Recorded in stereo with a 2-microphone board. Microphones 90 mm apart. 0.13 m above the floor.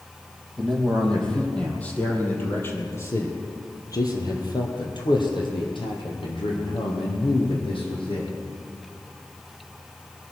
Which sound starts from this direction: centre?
A man speaking, at 0.6 s.